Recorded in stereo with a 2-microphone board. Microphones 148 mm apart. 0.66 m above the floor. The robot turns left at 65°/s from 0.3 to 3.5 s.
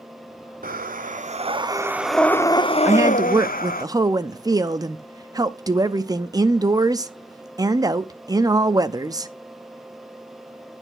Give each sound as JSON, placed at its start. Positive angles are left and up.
{"t": 0.6, "sound": "breathing", "azimuth_deg": -85, "distance_m": 0.7}
{"t": 2.9, "sound": "a woman speaking", "side_deg": -15, "distance_m": 0.5}